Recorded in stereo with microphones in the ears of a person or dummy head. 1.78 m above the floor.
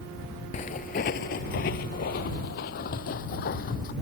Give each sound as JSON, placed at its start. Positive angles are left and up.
{"t": 0.5, "sound": "footsteps", "side_deg": 35}